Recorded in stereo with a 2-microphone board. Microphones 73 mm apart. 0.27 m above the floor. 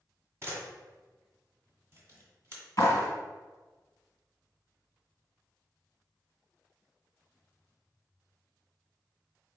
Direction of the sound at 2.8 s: 45° left (ahead or behind).